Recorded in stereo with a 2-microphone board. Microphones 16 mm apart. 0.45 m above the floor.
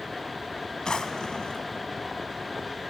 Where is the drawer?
50° left (ahead or behind), 1.4 m.